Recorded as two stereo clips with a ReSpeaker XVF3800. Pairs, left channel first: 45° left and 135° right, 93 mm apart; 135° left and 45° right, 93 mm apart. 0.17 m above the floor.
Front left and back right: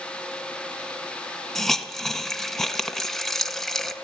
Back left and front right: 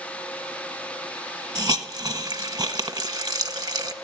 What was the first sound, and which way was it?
A hiss, 40° right.